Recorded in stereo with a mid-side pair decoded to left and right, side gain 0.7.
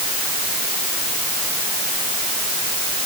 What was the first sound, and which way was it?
Only background noise.